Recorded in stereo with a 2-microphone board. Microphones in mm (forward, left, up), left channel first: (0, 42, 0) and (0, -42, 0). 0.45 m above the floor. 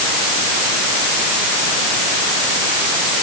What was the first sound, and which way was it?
Only background noise.